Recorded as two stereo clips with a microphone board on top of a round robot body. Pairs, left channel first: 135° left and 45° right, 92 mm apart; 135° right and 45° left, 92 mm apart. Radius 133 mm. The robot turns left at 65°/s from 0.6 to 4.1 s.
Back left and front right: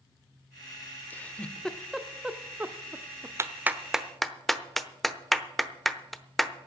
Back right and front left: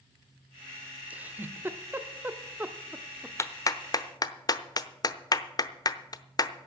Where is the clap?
90° right, 1.0 m; by 6.5 s 140° right, 1.0 m.